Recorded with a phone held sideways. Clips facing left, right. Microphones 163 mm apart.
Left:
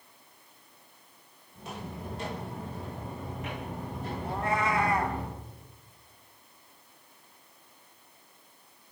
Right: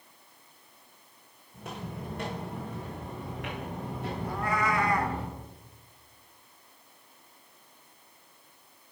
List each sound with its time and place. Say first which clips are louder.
1.5 s footsteps: right 1 dB; 55° right (ahead or behind), 4 m; by 5.2 s 70° right (ahead or behind), 3.5 m
4.2 s a cat meowing: left 1 dB; 25° left (ahead or behind), 1.1 m